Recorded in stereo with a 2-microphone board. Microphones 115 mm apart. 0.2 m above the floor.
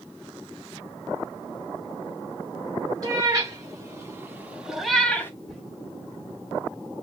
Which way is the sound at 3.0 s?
35° right (ahead or behind).